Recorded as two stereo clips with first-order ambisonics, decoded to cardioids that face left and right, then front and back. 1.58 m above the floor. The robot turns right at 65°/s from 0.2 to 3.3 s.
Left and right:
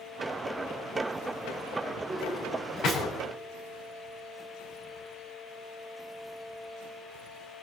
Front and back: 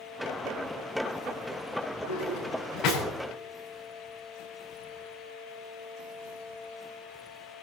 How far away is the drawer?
About 10 m.